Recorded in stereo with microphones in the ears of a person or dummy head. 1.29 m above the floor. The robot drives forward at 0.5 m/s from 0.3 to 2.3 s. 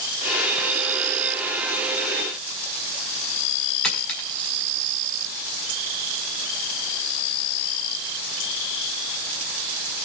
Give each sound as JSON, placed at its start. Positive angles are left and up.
{"t": 3.8, "sound": "a dropped coin", "side_deg": 5, "distance_m": 5.0}